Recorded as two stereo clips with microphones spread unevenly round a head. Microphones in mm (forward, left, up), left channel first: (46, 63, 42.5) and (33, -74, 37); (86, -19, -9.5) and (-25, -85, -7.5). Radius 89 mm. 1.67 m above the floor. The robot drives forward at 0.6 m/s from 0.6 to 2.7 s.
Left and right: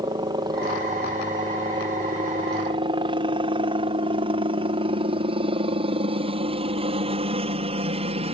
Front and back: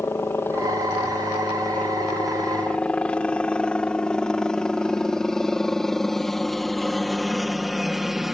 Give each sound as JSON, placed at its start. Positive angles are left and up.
{"t": 0.0, "sound": "a helicopter", "azimuth_deg": -40}